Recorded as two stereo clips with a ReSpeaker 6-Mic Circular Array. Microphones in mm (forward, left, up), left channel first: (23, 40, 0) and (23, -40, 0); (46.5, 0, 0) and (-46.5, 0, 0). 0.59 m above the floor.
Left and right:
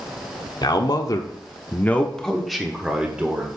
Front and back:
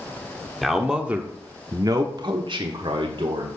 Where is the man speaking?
90° left, 1.2 m; by 3.5 s 160° right, 1.6 m.